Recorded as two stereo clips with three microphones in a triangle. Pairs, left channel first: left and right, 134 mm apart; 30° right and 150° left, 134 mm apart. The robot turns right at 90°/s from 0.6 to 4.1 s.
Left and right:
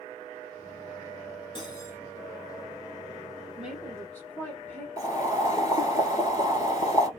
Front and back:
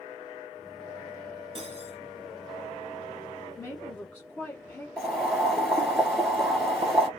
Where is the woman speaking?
15° right, 1.0 m; by 4.9 s 30° left, 1.0 m.